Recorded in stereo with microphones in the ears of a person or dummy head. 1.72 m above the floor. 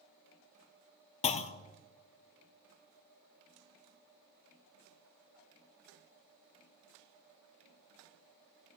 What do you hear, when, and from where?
1.2 s a clunk: 35° left (ahead or behind), 0.5 m